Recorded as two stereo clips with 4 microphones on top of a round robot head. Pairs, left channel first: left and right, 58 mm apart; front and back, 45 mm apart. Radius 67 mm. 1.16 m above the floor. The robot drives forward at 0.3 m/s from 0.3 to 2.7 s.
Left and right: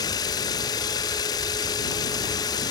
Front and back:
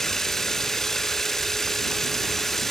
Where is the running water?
80° left.